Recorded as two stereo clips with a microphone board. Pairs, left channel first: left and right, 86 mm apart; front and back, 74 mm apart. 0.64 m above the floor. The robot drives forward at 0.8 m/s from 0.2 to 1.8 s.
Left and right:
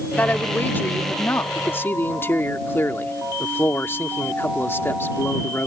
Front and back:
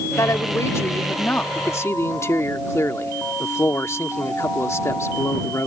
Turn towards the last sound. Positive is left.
turn(degrees=35)